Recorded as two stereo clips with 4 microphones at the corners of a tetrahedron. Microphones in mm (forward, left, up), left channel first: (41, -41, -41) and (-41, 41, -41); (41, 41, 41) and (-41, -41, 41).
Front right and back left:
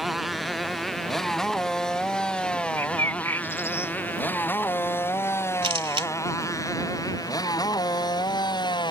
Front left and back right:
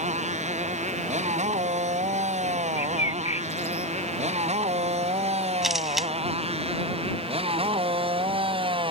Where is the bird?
25° left.